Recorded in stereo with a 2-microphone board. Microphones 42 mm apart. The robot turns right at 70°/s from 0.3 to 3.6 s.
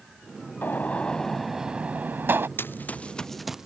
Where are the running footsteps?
60° left (ahead or behind); by 3.7 s 10° right (ahead or behind).